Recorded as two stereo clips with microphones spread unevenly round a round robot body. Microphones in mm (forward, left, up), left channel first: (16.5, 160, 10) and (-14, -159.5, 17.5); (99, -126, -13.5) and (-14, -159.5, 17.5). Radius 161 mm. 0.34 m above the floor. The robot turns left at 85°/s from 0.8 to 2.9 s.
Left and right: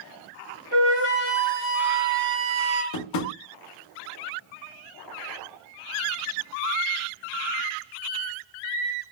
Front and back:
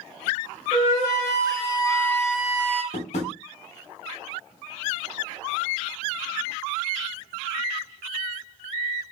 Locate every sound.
0.7 s a flute: 50° left, 1.4 m; by 2.8 s 125° right, 1.4 m
2.9 s tapping: 50° left, 0.6 m